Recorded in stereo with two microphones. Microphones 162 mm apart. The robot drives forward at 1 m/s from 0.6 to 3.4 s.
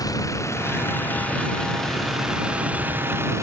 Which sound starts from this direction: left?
A vehicle, at 0.0 s.